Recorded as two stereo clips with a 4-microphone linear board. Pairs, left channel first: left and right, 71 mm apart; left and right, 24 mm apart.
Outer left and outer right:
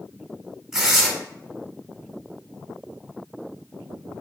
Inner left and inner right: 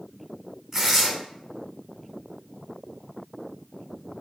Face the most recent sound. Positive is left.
turn(degrees=-10)  # may be behind; listen again after turning